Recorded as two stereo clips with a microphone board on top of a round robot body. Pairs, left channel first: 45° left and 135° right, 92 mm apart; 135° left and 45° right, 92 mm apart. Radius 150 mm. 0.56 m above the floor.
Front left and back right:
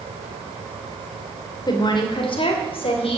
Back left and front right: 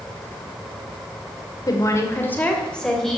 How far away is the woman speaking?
About 2.5 m.